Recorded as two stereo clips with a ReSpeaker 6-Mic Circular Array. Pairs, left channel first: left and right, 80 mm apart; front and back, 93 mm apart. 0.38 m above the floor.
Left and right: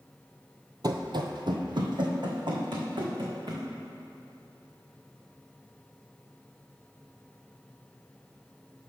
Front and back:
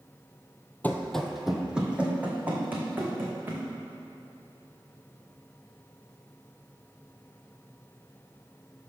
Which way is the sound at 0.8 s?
70° right.